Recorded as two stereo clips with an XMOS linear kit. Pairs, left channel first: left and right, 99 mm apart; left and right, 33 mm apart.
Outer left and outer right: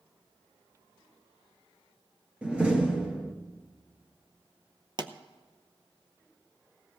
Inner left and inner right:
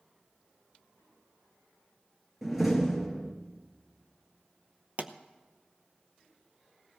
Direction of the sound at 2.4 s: 10° right (ahead or behind).